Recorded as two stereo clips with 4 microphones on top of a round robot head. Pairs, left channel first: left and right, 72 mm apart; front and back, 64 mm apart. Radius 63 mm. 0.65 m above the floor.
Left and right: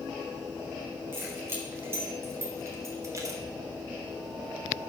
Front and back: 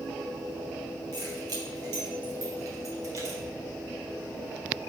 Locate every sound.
1.1 s keys jangling: 150° right, 2.5 m; by 3.4 s 130° right, 1.2 m